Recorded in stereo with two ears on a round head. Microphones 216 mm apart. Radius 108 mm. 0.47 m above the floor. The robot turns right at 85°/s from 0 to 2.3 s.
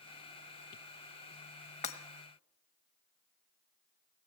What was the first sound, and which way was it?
Breaking glass, 30° left (ahead or behind).